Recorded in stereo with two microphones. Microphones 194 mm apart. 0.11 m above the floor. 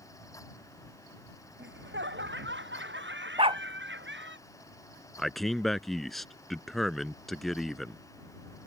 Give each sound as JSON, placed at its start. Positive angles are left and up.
{"t": 1.6, "sound": "laughter", "side_deg": -70}
{"t": 3.4, "sound": "a dog barking", "side_deg": -30}
{"t": 5.2, "sound": "a man speaking", "side_deg": 0}